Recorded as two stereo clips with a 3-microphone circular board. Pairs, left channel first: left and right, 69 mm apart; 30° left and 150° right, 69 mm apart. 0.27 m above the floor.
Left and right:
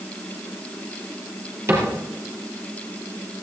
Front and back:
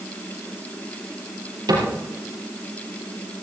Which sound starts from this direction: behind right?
A cupboard door, at 1.7 s.